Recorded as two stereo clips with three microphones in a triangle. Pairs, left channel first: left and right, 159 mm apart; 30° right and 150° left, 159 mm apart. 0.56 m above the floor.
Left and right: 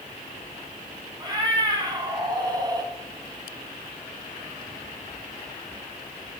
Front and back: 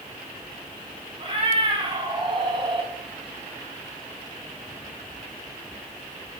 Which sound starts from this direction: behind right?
A cat meowing, at 1.2 s.